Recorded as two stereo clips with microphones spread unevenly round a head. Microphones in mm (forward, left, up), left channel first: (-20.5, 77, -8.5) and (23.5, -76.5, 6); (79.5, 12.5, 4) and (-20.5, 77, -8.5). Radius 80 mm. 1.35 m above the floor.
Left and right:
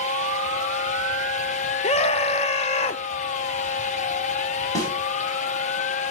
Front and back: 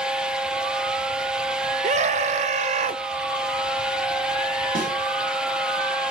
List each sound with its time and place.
0.0 s a fan: 65° left, 0.7 m
1.8 s a scream: 150° left, 0.5 m
4.8 s a snare drum: straight behind, 4 m